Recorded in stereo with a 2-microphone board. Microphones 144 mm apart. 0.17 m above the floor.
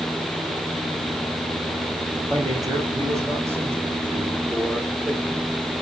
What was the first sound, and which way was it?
A man speaking, 25° right (ahead or behind).